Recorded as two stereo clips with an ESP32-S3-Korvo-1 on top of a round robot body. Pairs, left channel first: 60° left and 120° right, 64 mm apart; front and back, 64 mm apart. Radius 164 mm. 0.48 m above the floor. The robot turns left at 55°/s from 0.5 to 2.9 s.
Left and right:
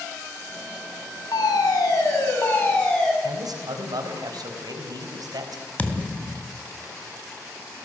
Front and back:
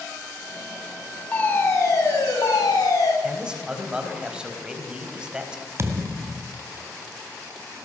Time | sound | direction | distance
1.3 | a fire alarm | 70° left | 7 m
3.2 | a man speaking | 105° right | 4.5 m
5.8 | a thud | 130° left | 2.5 m